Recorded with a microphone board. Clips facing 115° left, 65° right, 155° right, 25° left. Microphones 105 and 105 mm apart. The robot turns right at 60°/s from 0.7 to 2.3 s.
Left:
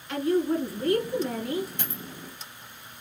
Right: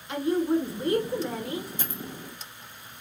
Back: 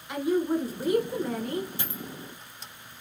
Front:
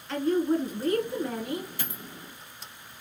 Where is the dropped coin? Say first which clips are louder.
Right 1 dB, back 2 dB; 135° left, 1.5 m; by 2.0 s 150° left, 1.5 m.